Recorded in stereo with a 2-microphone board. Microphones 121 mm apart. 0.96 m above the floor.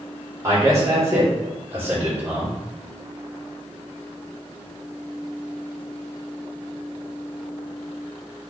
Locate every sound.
0.4 s a man speaking: 30° right (ahead or behind), 2.5 m; by 2.6 s 15° right (ahead or behind), 3.5 m